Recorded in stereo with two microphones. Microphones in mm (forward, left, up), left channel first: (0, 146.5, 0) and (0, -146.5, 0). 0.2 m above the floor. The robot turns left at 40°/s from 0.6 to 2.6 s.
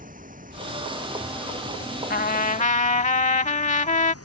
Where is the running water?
150° right; by 4.2 s 130° left.